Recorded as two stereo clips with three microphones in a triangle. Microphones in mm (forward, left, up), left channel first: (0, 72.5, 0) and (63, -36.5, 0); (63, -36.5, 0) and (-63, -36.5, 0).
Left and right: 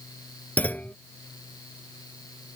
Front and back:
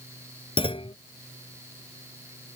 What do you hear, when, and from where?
0.6 s a clunk: 40° left